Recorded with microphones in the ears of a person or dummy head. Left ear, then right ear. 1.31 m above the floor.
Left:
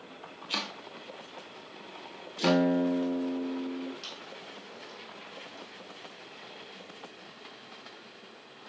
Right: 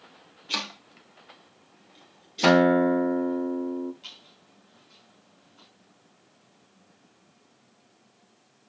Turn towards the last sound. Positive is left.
turn(degrees=55)  # may be behind; listen again after turning